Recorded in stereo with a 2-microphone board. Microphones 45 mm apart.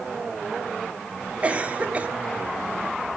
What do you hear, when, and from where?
1.4 s a cough: 25° right (ahead or behind), 1.7 m